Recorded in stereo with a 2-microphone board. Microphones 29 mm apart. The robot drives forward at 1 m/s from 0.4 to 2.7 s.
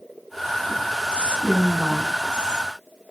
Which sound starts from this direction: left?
A woman speaking, at 1.1 s.